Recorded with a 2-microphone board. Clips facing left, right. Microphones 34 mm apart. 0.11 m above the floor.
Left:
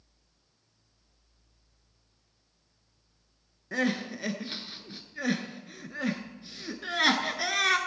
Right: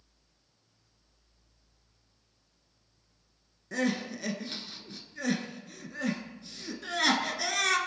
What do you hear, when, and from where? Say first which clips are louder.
3.7 s crying: left 1 dB; 20° left (ahead or behind), 1.3 m